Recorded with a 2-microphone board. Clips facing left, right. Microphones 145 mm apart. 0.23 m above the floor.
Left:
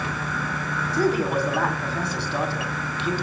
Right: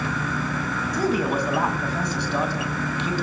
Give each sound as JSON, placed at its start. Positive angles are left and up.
{"t": 0.9, "sound": "a man speaking", "side_deg": -15, "distance_m": 1.6}